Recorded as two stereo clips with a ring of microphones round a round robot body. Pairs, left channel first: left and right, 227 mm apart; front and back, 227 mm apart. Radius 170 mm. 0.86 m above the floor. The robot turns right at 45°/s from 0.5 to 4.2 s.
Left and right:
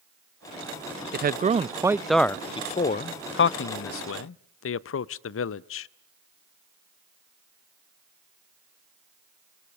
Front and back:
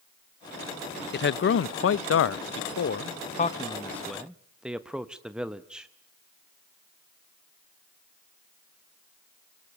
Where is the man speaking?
45° right, 0.5 m; by 5.9 s 95° left, 0.5 m.